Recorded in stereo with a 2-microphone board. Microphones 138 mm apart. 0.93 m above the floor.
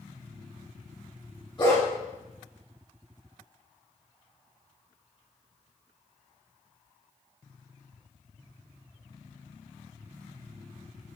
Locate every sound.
1.6 s a dog barking: 35° left (ahead or behind), 1.6 m